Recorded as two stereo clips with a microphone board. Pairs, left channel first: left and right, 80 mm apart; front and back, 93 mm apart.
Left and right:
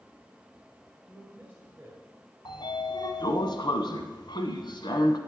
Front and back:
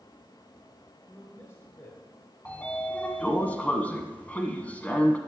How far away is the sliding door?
About 1.1 m.